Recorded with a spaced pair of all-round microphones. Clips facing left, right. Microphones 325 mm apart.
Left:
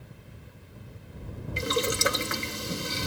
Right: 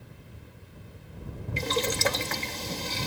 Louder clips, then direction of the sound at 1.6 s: Left 1 dB; 15° left (ahead or behind).